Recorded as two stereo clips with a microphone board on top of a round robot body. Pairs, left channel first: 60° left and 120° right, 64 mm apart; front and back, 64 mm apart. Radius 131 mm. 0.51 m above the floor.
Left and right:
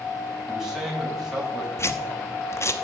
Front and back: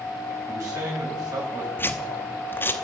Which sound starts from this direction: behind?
A man speaking, at 0.5 s.